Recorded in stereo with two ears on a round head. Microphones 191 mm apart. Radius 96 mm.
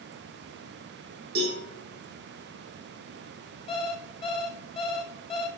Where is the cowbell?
45° right (ahead or behind), 5 m.